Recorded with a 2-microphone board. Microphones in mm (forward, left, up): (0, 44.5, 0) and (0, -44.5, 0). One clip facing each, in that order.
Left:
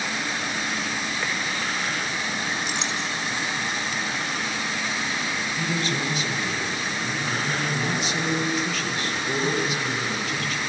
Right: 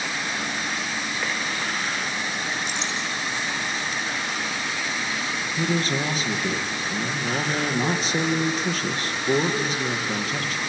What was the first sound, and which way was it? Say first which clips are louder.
A clink: left 1 dB; 80° left.